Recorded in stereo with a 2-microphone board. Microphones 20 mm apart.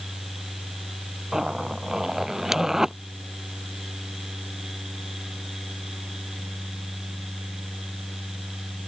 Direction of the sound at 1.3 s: 35° right (ahead or behind).